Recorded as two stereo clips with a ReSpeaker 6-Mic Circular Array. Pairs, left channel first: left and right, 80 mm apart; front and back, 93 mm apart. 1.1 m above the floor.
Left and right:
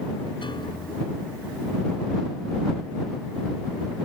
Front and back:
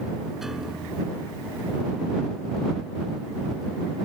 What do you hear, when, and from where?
0.4 s a piano: 95° left